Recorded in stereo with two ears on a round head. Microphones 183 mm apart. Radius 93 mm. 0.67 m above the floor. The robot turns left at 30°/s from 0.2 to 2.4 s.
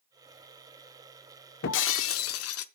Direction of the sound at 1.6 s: 60° left (ahead or behind).